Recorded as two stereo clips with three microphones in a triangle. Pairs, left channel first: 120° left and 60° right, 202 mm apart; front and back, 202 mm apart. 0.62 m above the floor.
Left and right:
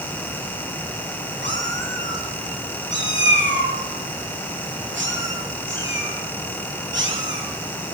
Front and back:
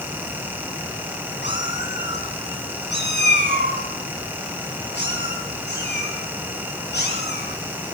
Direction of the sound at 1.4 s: 30° right.